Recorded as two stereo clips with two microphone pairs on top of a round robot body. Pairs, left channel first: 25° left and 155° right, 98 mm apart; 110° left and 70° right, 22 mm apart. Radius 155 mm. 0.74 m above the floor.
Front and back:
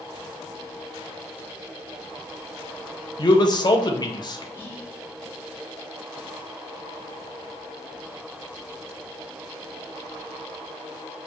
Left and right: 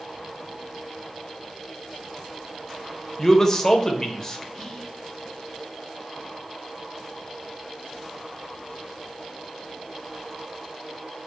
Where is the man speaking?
40° left, 0.7 m.